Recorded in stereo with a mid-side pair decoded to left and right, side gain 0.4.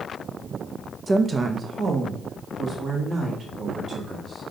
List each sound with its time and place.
1.1 s a woman speaking: 35° right, 0.7 m; by 4.4 s 55° right, 2.5 m